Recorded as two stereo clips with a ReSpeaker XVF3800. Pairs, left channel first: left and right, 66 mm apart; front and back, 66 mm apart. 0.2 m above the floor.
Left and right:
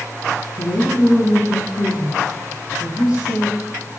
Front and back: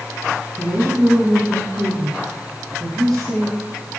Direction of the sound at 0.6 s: 85° left.